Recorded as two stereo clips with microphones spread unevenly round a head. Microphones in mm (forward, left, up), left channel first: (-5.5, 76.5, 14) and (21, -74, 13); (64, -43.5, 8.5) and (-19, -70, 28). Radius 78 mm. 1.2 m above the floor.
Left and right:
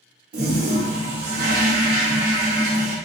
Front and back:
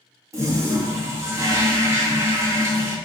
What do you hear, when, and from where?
0.3 s a toilet flushing: 115° right, 0.9 m